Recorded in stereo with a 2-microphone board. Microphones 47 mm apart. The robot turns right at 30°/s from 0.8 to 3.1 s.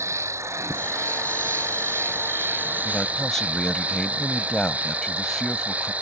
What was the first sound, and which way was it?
An insect, 100° right.